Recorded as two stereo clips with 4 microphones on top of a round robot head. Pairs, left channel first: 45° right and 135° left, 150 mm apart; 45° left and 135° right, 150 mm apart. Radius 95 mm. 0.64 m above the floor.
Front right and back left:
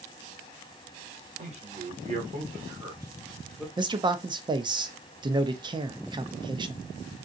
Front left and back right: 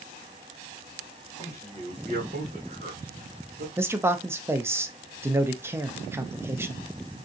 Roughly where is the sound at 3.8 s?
Behind.